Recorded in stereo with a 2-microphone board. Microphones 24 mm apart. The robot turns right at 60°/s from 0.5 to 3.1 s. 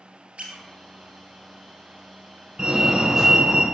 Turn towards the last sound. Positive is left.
turn(degrees=-20)  # may be behind; listen again after turning